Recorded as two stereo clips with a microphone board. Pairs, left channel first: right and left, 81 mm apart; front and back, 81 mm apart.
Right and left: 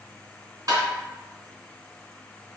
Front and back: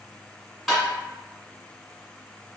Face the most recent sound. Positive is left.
turn(degrees=90)